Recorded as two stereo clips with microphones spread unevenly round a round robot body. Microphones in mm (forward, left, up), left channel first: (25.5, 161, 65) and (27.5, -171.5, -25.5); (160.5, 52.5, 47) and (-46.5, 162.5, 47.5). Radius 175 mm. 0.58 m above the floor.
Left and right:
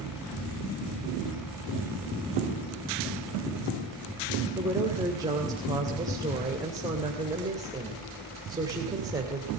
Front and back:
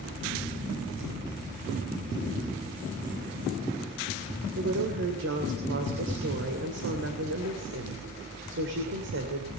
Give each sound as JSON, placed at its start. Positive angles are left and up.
{"t": 4.5, "sound": "a woman speaking", "azimuth_deg": -160, "distance_m": 2.5}